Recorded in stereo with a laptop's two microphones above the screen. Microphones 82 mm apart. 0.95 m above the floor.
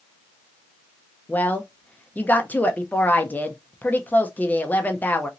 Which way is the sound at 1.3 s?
20° left (ahead or behind).